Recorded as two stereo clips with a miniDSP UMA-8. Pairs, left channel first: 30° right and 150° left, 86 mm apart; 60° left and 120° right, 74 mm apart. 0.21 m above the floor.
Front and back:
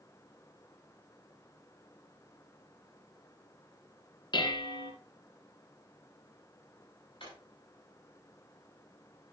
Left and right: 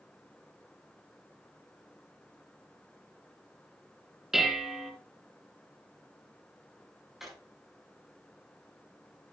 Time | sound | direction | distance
4.3 | dishes clattering | 35° right | 2.0 m
7.2 | a drawer | 35° right | 6.5 m